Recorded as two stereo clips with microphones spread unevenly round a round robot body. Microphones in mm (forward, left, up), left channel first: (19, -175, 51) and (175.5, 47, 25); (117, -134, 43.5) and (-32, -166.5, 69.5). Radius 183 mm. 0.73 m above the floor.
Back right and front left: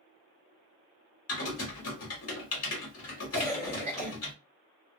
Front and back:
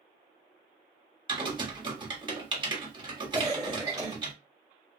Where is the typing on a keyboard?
105° right, 1.3 m.